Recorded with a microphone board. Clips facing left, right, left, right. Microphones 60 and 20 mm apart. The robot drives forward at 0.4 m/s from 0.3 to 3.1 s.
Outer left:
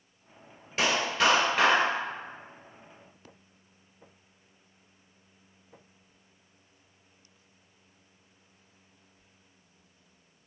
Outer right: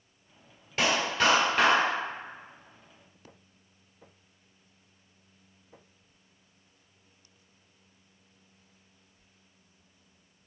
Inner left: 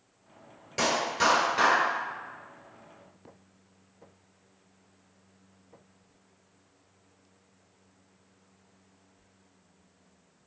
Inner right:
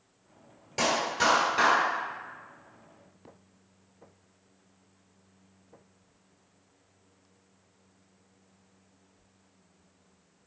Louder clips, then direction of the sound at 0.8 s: Even, even; centre (ahead or behind).